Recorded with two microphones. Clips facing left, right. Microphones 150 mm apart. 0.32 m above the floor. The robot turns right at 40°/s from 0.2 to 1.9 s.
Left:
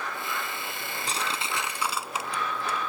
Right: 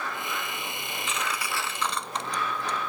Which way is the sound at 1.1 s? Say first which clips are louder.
Even; 40° left (ahead or behind).